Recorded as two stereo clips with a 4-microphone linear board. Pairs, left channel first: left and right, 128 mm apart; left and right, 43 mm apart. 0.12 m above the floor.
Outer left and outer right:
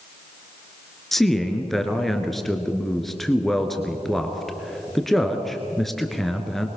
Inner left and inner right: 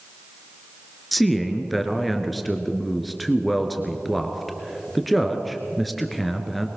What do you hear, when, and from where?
1.1 s a man speaking: centre (ahead or behind), 2 m